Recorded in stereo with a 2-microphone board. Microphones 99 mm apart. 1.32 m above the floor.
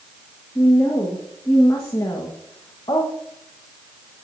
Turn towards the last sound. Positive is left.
turn(degrees=50)  # may be behind; listen again after turning